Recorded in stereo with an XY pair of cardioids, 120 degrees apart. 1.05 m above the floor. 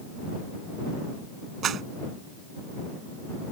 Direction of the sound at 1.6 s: 55° right.